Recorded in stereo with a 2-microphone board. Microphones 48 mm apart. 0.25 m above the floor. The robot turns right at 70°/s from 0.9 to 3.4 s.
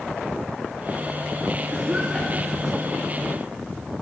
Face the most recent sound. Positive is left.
turn(degrees=45)  # may be behind; listen again after turning